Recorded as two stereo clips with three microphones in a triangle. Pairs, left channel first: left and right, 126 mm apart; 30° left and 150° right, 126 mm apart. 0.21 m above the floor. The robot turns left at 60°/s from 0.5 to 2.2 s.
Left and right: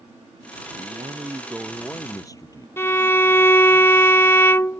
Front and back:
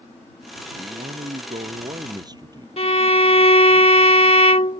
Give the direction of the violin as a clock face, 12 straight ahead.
11 o'clock.